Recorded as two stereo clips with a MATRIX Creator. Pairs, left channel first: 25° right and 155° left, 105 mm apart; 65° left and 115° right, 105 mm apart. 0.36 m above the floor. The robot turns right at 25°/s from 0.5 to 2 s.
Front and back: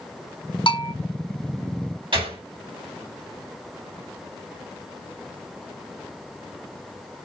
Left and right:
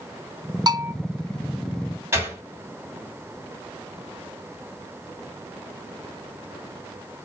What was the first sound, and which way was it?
A bell, 65° right.